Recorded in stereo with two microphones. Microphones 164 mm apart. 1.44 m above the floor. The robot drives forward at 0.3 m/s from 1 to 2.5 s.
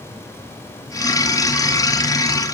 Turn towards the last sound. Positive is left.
No sound to turn to.